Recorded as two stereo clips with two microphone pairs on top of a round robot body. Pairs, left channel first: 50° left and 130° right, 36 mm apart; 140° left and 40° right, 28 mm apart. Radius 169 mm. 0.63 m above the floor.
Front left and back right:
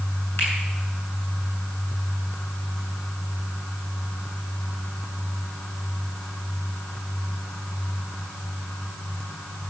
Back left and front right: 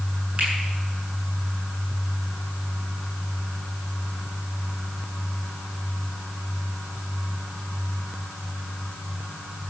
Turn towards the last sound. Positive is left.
turn(degrees=15)